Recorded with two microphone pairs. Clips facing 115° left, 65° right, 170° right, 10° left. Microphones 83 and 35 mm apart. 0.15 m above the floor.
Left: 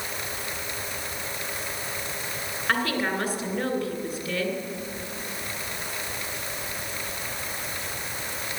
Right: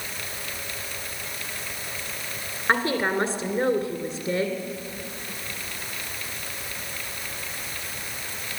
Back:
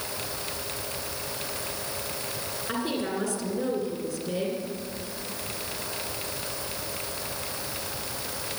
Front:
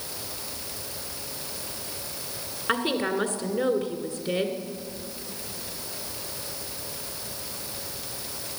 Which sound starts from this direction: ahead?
A woman speaking, at 2.7 s.